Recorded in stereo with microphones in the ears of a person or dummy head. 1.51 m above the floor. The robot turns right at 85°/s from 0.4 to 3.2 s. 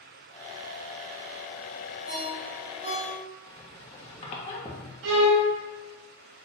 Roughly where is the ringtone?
Right.